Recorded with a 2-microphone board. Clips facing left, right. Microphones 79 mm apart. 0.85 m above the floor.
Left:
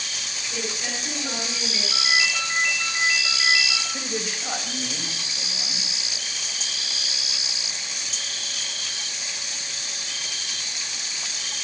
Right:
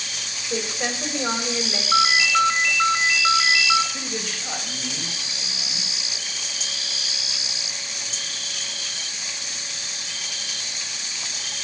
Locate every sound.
0.5 s a woman speaking: 65° right (ahead or behind), 5 m
1.9 s a ringtone: 80° right, 2 m
3.9 s a man speaking: 10° left (ahead or behind), 3.5 m